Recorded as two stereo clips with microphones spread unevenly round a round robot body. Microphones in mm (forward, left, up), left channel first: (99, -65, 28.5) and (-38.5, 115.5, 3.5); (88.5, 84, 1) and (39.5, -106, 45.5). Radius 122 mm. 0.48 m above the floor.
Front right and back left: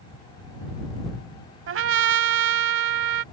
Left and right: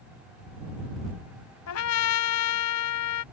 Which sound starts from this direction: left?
A trumpet, at 1.7 s.